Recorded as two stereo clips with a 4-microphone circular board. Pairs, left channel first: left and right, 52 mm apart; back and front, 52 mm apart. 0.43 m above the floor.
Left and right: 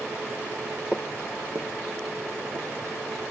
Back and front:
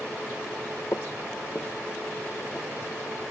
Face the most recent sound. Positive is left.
turn(degrees=-95)